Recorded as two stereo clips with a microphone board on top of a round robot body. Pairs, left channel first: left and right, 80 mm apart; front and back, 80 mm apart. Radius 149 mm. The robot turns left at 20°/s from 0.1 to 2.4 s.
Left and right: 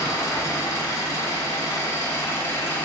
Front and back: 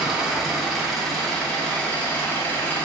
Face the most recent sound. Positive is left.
turn(degrees=55)